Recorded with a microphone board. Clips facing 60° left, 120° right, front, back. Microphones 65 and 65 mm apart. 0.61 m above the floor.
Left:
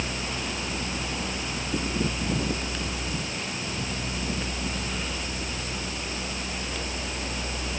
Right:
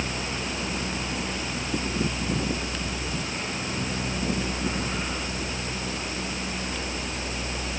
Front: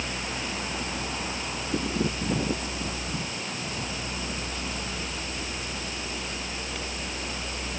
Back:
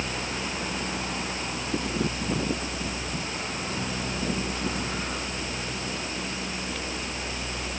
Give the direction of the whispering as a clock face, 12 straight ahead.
No whispering in this recording.